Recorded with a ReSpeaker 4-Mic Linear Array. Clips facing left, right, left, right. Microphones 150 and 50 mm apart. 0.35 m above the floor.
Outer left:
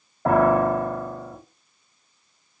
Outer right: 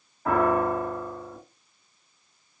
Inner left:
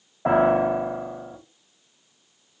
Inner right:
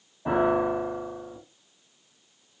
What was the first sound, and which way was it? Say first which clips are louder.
A piano: outer left 5 dB, inner left 4 dB; 75° left (ahead or behind).